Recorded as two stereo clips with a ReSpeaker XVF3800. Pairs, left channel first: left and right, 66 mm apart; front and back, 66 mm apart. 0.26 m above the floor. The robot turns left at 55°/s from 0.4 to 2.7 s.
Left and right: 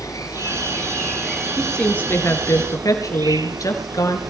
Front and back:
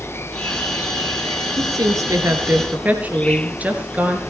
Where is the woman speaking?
175° left, 4 m; by 4.2 s 115° left, 4 m.